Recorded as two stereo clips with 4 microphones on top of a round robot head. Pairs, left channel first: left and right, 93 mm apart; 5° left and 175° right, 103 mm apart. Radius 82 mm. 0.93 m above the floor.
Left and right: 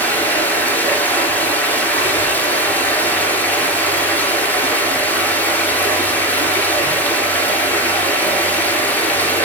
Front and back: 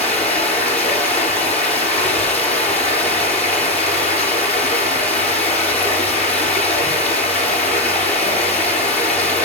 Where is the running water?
20° left, 4 m.